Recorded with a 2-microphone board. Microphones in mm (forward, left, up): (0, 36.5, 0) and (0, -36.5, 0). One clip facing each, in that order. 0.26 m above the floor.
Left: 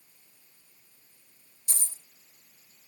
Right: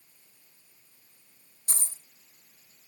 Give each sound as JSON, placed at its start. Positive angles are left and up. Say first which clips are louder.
{"t": 1.7, "sound": "a dropped coin", "louder": "right 2 dB", "side_deg": -50, "distance_m": 1.3}